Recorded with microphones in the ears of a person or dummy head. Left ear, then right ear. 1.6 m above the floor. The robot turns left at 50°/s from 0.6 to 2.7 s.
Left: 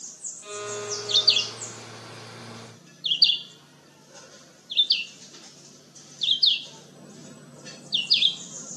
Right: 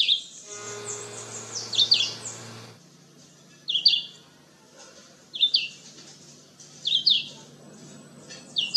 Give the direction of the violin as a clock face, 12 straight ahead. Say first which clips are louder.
Left 4 dB; 8 o'clock.